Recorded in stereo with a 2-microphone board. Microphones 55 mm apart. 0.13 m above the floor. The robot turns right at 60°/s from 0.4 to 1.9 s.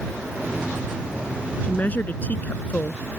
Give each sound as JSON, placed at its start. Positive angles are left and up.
{"t": 1.6, "sound": "a woman speaking", "side_deg": 35}